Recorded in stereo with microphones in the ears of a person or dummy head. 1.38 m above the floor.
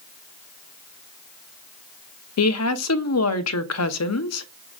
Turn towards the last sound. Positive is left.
turn(degrees=75)  # may be behind; listen again after turning